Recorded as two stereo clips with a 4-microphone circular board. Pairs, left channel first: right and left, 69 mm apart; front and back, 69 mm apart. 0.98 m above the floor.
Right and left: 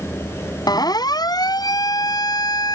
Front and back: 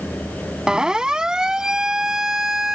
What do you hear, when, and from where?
0.7 s a siren: 105° right; by 2.8 s 100° right